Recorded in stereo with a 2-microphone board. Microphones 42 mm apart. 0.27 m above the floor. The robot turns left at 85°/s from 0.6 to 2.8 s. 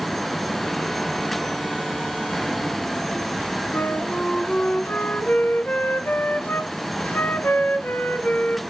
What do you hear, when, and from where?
3.7 s a flute: 50° left (ahead or behind), 0.7 m